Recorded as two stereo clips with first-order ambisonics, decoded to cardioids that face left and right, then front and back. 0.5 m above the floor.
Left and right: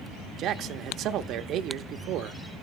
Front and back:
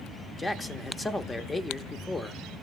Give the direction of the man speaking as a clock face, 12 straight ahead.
2 o'clock.